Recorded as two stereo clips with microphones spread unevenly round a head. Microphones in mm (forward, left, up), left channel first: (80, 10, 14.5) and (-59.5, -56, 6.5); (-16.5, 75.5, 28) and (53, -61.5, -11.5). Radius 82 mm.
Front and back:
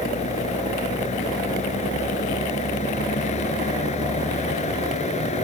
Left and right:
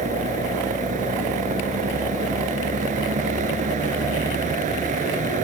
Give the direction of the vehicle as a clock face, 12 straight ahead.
1 o'clock.